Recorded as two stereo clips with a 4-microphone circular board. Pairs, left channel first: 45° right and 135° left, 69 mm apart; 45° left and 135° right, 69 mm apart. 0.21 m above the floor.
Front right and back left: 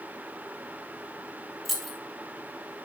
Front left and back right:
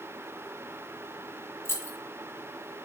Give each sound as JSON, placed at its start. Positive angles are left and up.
{"t": 1.6, "sound": "keys jangling", "azimuth_deg": 40, "distance_m": 0.7}